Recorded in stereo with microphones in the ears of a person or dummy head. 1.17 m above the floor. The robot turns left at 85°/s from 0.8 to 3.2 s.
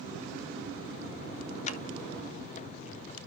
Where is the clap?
45° left (ahead or behind), 1.1 m; by 1.8 s 35° left (ahead or behind), 1.1 m.